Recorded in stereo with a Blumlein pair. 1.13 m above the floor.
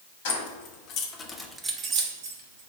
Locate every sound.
0.2 s keys jangling: 55° left, 1.2 m; by 2.7 s 65° right, 1.1 m